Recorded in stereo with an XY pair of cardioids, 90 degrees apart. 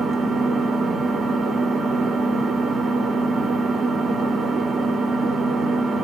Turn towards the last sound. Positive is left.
turn(degrees=-65)